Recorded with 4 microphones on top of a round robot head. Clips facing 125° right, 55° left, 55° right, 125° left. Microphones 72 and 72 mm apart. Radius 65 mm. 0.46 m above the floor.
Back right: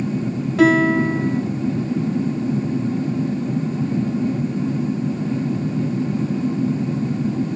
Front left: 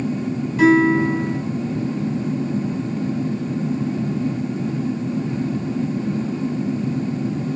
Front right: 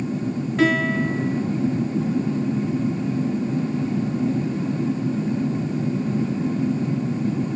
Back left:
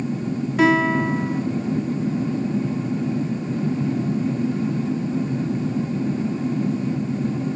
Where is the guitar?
150° right, 2.5 m.